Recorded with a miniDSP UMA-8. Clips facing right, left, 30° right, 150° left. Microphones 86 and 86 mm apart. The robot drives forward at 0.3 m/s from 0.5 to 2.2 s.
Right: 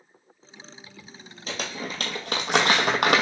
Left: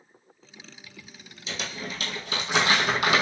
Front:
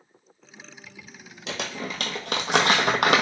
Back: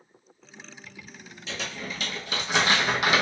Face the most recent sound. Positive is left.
turn(degrees=-60)